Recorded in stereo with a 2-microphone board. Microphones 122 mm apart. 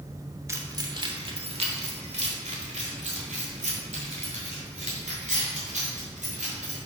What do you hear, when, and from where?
0.5 s keys jangling: 25° right (ahead or behind), 0.8 m; by 6.8 s 85° right, 3.5 m